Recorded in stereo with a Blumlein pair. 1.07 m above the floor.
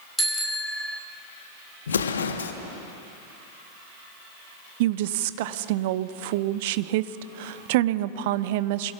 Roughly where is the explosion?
Left.